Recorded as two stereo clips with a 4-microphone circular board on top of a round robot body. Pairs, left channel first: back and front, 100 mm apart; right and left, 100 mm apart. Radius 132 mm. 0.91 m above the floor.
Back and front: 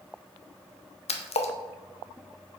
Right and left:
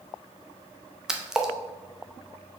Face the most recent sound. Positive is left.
turn(degrees=175)